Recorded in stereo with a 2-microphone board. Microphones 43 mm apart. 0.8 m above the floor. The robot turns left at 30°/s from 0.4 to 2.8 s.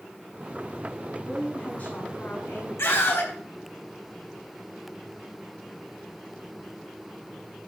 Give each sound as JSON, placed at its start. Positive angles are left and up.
{"t": 1.2, "sound": "a woman speaking", "azimuth_deg": 160, "distance_m": 7.0}
{"t": 2.8, "sound": "a scream", "side_deg": 75, "distance_m": 4.0}